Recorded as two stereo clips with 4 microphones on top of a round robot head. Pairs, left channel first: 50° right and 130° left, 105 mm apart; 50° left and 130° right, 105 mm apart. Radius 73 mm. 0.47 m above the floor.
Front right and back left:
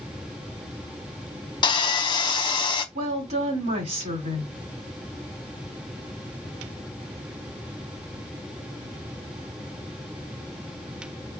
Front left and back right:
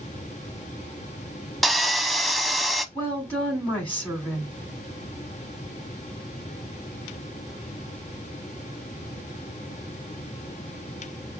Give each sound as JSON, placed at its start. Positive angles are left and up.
{"t": 1.6, "sound": "sawing", "azimuth_deg": -40, "distance_m": 0.7}
{"t": 3.0, "sound": "a woman speaking", "azimuth_deg": 125, "distance_m": 3.5}